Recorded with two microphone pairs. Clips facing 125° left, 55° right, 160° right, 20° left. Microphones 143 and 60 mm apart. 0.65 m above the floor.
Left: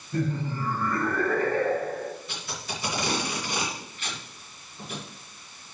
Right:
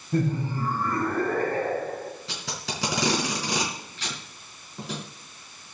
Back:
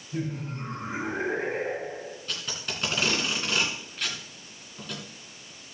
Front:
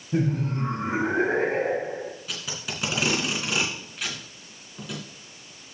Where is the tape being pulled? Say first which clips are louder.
Right 1 dB, front 1 dB; 65° right, 3.5 m.